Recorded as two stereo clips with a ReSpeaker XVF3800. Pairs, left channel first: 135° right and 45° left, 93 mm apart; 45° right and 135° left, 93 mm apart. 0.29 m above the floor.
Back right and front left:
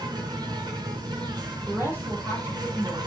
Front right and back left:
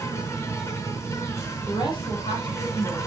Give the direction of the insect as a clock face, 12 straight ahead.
12 o'clock.